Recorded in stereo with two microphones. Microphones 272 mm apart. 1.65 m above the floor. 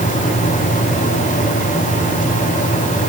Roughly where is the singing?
No singing in this recording.